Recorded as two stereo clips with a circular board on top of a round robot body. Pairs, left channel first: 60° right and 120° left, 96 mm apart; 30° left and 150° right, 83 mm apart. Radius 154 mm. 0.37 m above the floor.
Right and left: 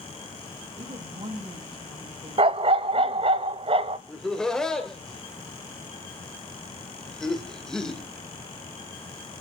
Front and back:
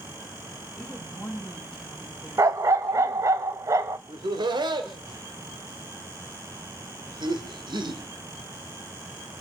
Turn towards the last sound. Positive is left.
turn(degrees=-145)